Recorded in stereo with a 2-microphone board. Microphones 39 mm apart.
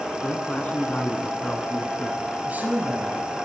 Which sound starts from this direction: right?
A man speaking, at 2.5 s.